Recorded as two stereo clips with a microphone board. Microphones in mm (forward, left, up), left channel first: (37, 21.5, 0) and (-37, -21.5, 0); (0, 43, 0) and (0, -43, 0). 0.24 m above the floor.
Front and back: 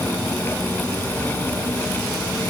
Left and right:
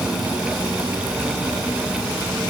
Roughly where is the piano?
I don't hear a piano.